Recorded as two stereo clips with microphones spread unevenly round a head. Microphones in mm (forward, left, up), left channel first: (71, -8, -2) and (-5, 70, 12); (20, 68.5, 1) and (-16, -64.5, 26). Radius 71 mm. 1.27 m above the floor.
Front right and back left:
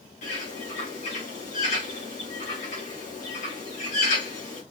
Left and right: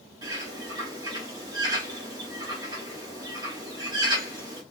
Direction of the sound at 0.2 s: 40° right.